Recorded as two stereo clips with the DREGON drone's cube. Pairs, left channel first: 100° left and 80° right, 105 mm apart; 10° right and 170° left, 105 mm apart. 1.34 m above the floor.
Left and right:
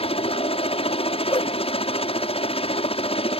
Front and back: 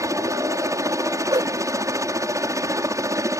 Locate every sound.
0.0 s a helicopter: 115° left
1.3 s a whoosh: 135° left